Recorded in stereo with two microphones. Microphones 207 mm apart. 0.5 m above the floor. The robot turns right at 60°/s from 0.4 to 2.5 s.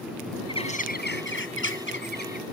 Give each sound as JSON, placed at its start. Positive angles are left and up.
{"t": 0.5, "sound": "a bird", "azimuth_deg": 25}